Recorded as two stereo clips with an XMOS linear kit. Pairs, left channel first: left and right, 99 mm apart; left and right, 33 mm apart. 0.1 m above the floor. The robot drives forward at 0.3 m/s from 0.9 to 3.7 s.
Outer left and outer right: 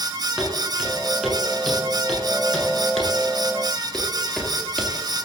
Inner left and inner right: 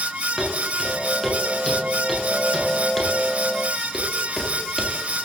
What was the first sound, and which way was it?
Footsteps, 10° right (ahead or behind).